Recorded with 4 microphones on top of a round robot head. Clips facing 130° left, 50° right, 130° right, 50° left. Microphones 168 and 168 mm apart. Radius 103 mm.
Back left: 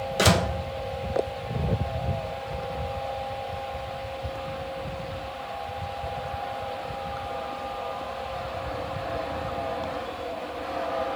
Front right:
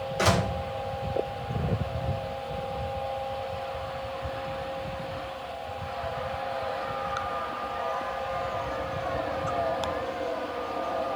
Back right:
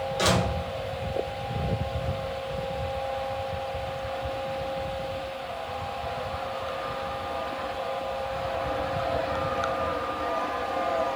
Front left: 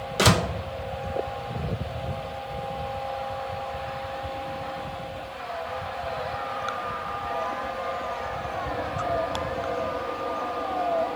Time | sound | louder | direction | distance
0.2 | a door slam | back left 3 dB, front left 3 dB | 75° left | 1.0 m